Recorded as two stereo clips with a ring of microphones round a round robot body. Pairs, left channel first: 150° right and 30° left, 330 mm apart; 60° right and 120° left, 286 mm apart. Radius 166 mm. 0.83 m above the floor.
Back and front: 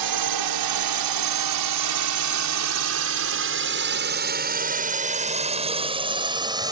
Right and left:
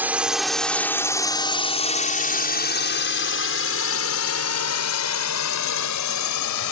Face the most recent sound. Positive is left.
turn(degrees=-50)